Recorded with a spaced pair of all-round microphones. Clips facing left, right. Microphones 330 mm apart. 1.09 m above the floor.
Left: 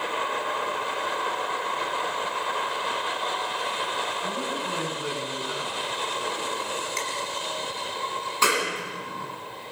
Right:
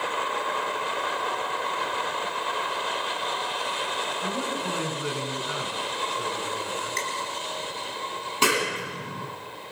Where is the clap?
40° right (ahead or behind), 10 m.